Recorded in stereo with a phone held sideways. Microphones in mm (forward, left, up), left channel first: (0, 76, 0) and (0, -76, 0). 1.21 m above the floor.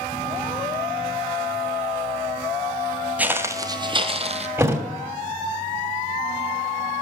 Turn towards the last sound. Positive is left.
turn(degrees=-15)  # may be behind; listen again after turning